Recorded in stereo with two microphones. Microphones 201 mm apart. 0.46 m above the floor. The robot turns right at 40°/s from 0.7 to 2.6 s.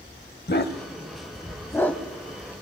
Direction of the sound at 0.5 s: 55° left (ahead or behind).